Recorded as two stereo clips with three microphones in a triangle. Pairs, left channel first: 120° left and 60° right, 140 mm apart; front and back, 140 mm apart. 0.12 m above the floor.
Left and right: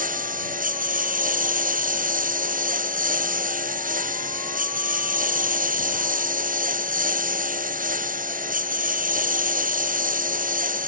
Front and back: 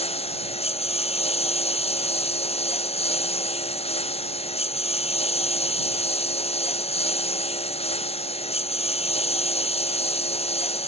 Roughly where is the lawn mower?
Ahead right.